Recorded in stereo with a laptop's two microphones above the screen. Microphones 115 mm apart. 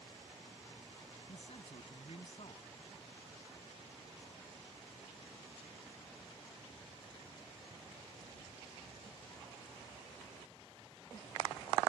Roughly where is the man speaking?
Left.